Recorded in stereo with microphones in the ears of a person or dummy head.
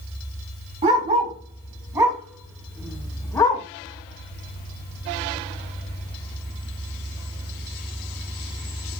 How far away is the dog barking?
About 4 m.